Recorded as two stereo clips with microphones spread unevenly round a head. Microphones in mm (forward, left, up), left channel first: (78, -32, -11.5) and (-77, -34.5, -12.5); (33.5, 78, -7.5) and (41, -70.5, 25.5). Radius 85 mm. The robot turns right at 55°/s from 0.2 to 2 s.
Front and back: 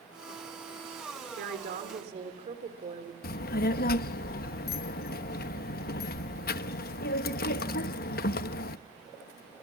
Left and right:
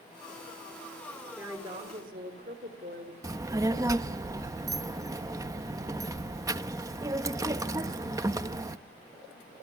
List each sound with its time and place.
1.4 s a woman speaking: 165° right, 3.5 m; by 3.1 s 130° right, 3.5 m
3.2 s a child speaking: 20° right, 1.0 m